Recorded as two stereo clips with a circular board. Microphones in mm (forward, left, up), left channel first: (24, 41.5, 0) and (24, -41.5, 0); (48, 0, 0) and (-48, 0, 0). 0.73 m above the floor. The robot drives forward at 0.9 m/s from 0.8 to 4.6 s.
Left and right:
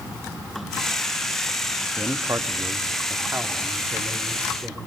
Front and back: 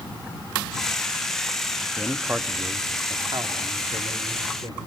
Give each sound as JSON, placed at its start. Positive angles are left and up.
{"t": 2.0, "sound": "a man speaking", "azimuth_deg": -85, "distance_m": 0.9}